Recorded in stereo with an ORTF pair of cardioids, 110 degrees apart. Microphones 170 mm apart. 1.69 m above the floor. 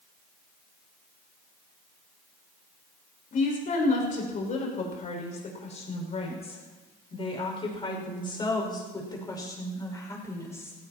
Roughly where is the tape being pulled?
No tape being pulled in this recording.